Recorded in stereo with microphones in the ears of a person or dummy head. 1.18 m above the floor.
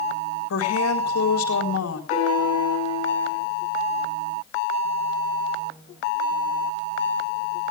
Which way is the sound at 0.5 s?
75° left (ahead or behind).